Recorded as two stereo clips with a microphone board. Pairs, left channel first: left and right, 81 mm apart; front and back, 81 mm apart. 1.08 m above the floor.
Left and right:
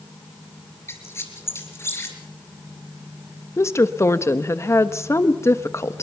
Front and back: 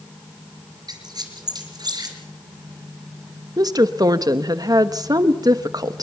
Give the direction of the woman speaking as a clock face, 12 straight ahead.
7 o'clock.